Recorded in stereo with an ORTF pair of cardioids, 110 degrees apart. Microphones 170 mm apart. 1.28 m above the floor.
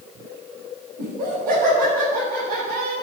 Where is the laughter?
60° right, 7.5 m; by 2.9 s 65° right, 9 m.